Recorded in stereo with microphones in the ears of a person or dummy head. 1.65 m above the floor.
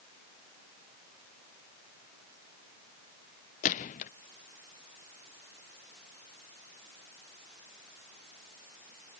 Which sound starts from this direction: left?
A gunshot, at 3.6 s.